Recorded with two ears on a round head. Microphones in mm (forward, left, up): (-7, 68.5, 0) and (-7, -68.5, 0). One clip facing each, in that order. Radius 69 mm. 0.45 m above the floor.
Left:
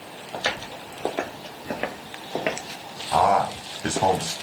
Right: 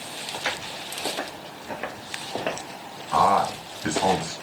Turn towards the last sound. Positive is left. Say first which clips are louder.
# left 1 dB
turn(degrees=45)  # may be behind; listen again after turning